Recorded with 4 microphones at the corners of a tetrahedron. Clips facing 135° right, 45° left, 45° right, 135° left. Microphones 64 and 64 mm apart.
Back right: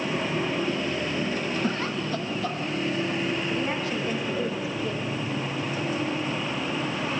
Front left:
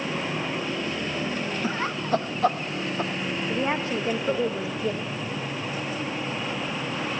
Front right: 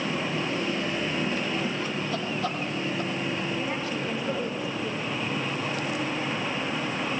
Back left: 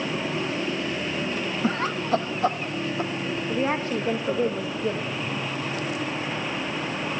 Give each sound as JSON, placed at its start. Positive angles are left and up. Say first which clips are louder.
{"t": 1.6, "sound": "laughter", "louder": "even, back left 4 dB", "azimuth_deg": 120, "distance_m": 0.9}
{"t": 3.5, "sound": "a woman speaking", "louder": "front left 2 dB, back left 5 dB", "azimuth_deg": 100, "distance_m": 1.9}